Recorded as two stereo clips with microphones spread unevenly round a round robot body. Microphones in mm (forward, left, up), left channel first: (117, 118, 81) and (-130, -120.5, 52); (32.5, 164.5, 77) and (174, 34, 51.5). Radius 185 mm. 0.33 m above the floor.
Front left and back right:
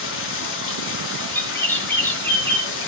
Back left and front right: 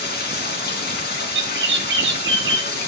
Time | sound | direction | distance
0.0 | running water | 100° left | 4 m
1.3 | a bird | 40° right | 3 m